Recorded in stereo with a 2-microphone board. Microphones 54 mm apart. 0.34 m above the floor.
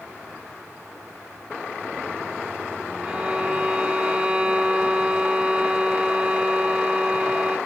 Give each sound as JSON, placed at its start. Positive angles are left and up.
{"t": 3.0, "sound": "a violin", "side_deg": -15, "distance_m": 0.7}